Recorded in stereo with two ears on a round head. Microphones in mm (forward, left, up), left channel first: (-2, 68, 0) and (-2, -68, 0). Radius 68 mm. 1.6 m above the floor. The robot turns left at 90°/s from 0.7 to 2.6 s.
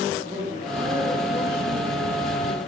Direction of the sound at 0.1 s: 150° right.